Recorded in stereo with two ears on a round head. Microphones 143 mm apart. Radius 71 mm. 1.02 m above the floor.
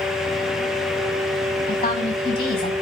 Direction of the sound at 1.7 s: 30° left (ahead or behind).